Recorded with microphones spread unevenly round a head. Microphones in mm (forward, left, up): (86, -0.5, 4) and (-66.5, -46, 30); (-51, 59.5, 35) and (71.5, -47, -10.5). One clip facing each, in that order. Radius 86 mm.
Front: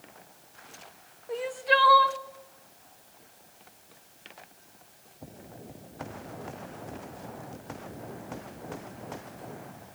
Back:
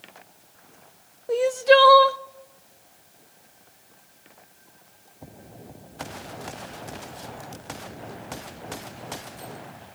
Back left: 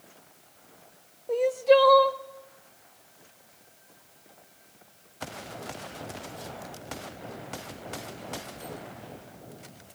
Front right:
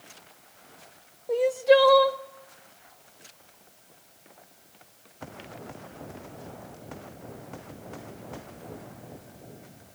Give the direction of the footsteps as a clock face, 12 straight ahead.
No footsteps in this recording.